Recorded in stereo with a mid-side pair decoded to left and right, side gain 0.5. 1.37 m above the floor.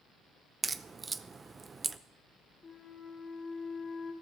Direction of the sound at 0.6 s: 30° right.